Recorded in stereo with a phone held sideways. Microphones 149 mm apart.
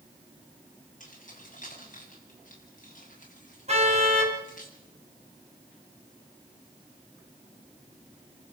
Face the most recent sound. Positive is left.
turn(degrees=-45)  # may be behind; listen again after turning